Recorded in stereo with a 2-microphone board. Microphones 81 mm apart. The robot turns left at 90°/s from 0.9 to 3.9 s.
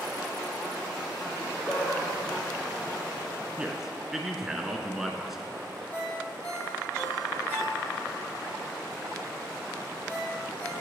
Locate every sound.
1.3 s laughter: 30° right (ahead or behind), 1.7 m; by 3.5 s 20° left (ahead or behind), 1.7 m
3.6 s a man speaking: 15° right (ahead or behind), 1.1 m; by 5.7 s 5° right (ahead or behind), 1.1 m
5.9 s a ringtone: 20° left (ahead or behind), 3 m